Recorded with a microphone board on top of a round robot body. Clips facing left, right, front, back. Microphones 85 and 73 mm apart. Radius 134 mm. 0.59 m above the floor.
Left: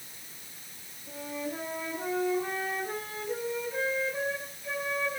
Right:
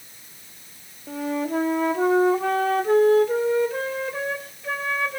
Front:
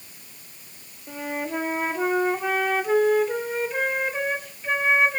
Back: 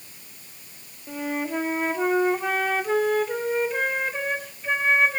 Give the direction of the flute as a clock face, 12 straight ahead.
3 o'clock.